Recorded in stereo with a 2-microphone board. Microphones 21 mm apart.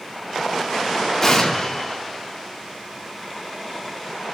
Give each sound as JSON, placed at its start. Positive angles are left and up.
{"t": 1.2, "sound": "an explosion", "side_deg": 15, "distance_m": 2.5}